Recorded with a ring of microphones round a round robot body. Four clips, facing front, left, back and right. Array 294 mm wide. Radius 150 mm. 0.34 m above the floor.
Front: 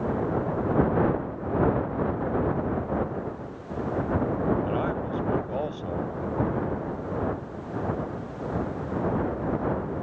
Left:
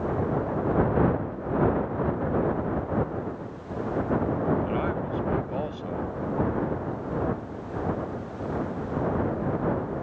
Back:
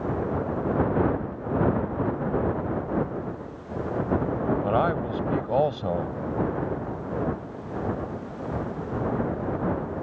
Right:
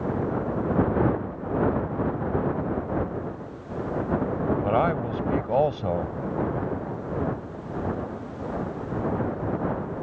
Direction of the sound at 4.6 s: 130° right.